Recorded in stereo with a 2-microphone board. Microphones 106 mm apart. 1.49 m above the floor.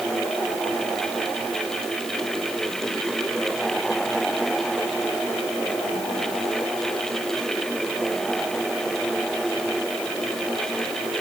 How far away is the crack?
No crack in this recording.